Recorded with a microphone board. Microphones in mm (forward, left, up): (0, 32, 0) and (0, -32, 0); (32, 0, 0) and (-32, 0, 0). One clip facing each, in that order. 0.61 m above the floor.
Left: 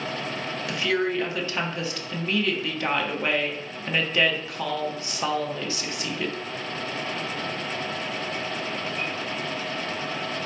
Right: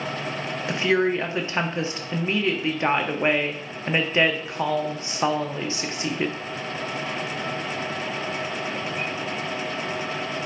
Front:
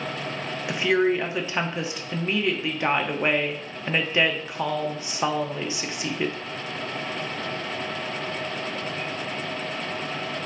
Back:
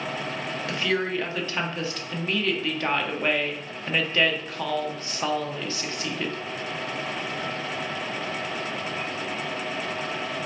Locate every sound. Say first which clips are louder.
0.7 s a woman speaking: right 4 dB, front 6 dB; 55° right, 0.6 m